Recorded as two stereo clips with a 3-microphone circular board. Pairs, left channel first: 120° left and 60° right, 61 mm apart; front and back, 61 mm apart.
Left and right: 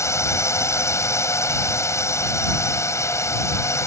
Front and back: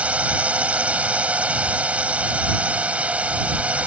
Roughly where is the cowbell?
No cowbell in this recording.